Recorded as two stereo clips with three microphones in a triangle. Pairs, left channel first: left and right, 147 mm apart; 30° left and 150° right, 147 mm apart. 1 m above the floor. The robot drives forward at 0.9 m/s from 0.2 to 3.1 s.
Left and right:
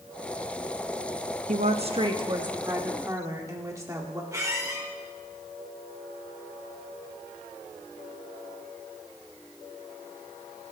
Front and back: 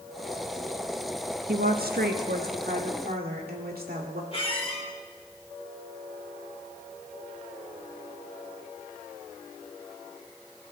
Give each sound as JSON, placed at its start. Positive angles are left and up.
{"t": 1.5, "sound": "a woman speaking", "azimuth_deg": -125, "distance_m": 0.9}
{"t": 4.3, "sound": "a squeak", "azimuth_deg": -20, "distance_m": 2.5}